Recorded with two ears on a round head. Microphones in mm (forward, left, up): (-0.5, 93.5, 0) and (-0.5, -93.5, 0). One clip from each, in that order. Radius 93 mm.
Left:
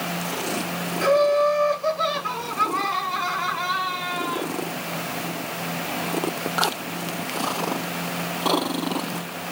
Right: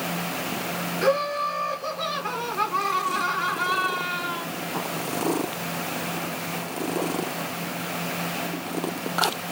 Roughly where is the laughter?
Left.